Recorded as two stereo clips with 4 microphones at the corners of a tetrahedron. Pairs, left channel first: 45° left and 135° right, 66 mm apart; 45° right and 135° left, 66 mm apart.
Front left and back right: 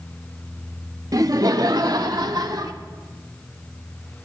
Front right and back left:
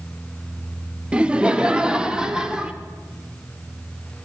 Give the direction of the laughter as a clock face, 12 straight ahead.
5 o'clock.